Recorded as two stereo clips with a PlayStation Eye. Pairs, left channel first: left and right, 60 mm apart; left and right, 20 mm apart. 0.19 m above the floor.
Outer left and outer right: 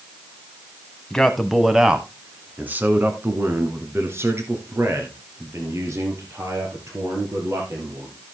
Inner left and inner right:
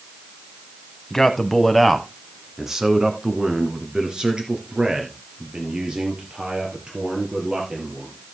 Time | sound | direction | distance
1.1 | a man speaking | 10° left (ahead or behind) | 1.1 m